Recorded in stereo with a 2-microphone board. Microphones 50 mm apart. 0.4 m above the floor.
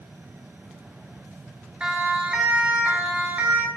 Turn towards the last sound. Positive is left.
turn(degrees=-25)  # may be behind; listen again after turning